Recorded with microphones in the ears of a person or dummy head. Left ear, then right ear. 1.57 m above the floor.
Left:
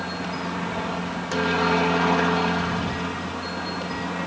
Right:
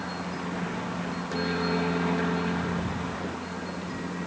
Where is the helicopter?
25° left (ahead or behind); by 4.3 s 35° left (ahead or behind).